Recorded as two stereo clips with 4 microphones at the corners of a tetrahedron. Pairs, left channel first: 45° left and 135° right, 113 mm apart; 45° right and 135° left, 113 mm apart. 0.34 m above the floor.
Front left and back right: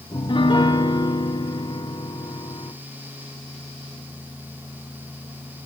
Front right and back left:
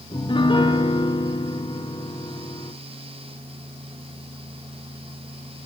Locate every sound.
0.1 s a piano: straight ahead, 0.9 m